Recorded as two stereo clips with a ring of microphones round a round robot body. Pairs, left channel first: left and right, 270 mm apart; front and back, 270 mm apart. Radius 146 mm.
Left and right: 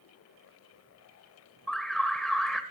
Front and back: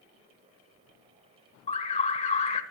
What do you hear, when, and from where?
1.7 s an alarm: 5° left, 1.2 m